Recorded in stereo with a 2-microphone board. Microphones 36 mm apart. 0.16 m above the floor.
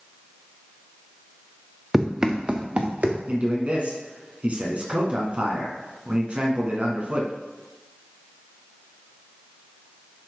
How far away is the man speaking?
About 1.9 m.